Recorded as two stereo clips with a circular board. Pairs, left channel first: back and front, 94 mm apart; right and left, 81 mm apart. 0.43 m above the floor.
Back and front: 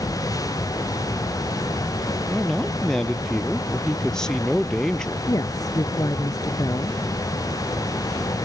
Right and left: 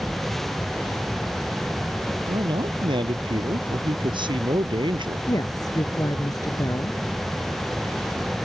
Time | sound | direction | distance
2.3 | a man speaking | 95° left | ?
5.3 | a woman speaking | 130° right | ?